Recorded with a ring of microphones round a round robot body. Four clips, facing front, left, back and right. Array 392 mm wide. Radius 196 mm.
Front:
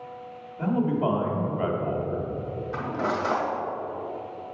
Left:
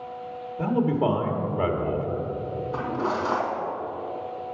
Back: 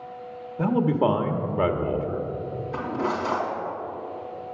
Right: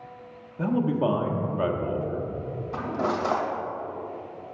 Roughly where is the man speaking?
Behind.